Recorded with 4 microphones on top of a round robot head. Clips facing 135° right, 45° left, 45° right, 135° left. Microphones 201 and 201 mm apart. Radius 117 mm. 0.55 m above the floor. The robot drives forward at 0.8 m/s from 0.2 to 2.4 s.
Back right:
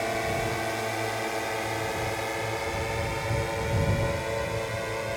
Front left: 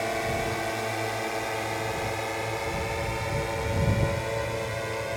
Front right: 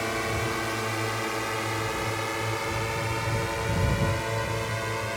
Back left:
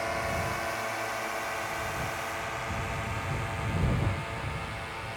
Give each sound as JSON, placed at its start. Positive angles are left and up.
{"t": 0.0, "sound": "a drone", "azimuth_deg": -45}